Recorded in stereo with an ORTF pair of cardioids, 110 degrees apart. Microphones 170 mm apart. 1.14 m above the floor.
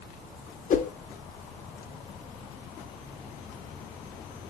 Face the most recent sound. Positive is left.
turn(degrees=45)